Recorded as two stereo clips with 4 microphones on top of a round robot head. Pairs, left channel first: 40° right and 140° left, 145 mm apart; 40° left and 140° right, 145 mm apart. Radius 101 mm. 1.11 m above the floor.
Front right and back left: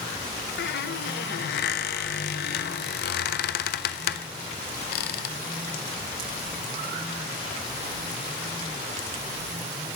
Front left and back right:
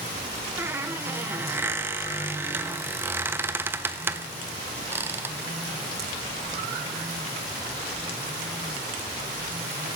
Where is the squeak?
60° right, 0.6 m.